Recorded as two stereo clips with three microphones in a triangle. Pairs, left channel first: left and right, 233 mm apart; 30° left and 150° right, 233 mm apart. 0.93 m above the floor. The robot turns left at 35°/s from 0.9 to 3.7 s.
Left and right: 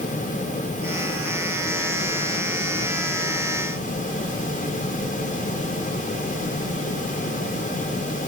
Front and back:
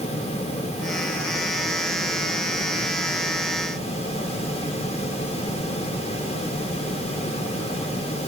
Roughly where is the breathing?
No breathing in this recording.